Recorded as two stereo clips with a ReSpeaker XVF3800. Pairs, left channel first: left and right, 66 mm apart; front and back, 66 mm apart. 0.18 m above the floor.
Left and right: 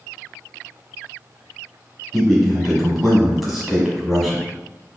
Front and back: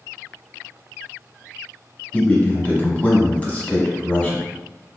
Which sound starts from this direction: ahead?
A man speaking, at 2.1 s.